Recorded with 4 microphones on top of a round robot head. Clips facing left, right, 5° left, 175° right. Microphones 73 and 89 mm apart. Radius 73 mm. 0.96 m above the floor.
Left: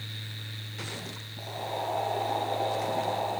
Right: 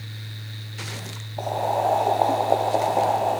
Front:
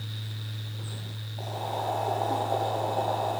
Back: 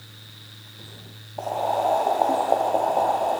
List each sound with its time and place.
1.4 s boiling: 130° right, 2.5 m